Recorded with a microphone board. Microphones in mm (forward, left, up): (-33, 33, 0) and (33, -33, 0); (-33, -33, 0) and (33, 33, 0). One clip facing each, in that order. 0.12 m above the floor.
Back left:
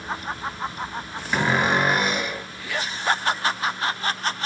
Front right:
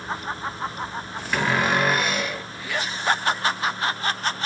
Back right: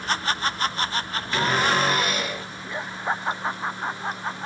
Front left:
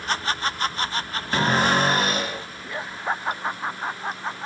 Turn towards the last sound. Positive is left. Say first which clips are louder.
# back left 1 dB, front left 2 dB
turn(degrees=60)